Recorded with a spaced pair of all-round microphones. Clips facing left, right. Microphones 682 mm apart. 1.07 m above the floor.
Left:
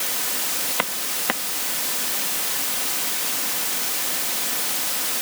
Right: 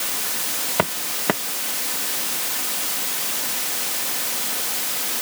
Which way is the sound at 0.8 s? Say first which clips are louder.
Right 9 dB; 70° right (ahead or behind).